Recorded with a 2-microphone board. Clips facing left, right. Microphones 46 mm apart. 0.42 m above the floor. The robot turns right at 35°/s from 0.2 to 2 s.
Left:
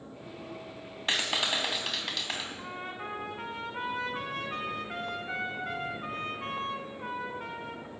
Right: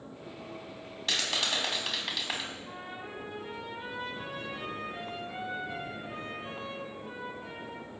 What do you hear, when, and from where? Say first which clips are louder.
1.1 s a clap: left 2 dB; 150° left, 3.5 m; by 2.5 s 175° right, 3.5 m
2.6 s a trumpet: left 3 dB; 60° left (ahead or behind), 4 m